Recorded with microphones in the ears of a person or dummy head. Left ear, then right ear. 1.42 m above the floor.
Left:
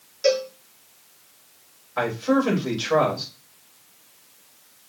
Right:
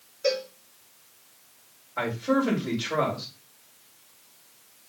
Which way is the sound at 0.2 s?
80° left.